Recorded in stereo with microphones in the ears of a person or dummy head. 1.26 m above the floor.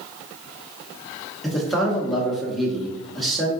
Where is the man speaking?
5° left (ahead or behind), 1.2 m.